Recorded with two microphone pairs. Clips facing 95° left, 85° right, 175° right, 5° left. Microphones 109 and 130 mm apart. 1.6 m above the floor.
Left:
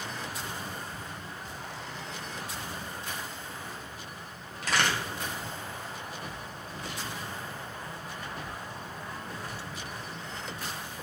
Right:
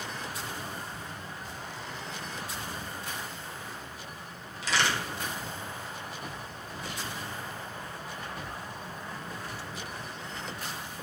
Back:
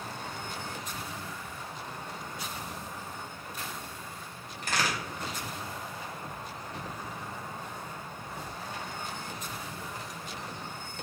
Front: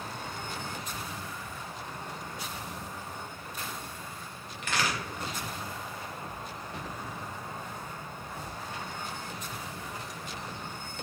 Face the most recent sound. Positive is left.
turn(degrees=135)